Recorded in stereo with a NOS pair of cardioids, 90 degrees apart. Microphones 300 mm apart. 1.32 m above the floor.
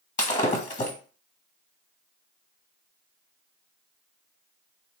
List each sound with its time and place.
0.2 s breaking glass: 25° left, 1.2 m